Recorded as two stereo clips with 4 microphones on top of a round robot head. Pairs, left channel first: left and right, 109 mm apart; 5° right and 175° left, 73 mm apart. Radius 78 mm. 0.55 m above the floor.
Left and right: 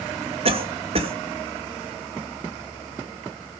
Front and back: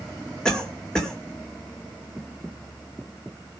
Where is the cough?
85° right, 2.5 m.